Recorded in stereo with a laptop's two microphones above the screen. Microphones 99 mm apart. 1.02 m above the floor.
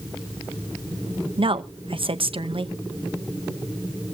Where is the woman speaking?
65° right (ahead or behind), 0.8 m.